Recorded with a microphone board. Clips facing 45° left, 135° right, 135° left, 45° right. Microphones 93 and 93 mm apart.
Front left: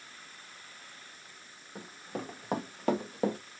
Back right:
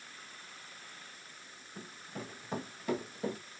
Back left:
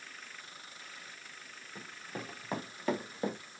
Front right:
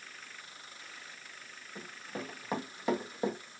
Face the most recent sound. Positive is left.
turn(degrees=30)